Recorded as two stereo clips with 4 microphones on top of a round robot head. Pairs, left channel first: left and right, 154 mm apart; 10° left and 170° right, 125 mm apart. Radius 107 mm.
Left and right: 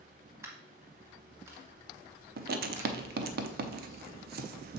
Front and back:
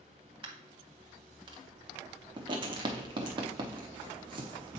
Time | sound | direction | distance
0.4 | a dropped coin | 155° right | 0.6 m
2.4 | writing | 110° right | 0.7 m